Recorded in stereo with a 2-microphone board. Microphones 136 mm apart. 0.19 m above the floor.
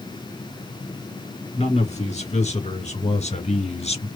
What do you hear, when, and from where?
1.6 s a man speaking: 50° left (ahead or behind), 3 m; by 4.1 s 45° left (ahead or behind), 1.9 m